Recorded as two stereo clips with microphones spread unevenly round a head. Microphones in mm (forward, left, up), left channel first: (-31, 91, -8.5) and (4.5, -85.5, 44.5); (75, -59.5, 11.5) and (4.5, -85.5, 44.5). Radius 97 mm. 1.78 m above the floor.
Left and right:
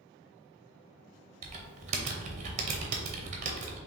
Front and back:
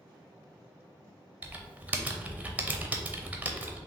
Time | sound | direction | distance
1.4 | typing on a keyboard | 110° right | 0.7 m